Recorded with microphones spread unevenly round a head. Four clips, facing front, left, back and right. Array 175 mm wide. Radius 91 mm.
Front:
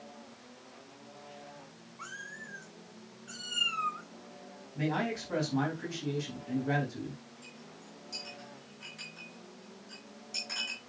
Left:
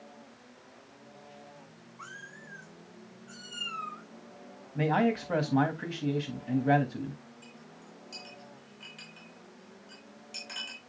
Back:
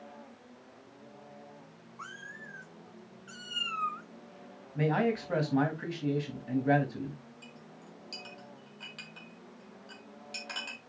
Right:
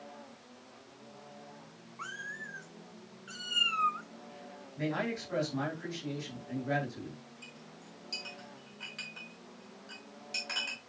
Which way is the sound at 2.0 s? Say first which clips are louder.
Right 5 dB, even; 155° right.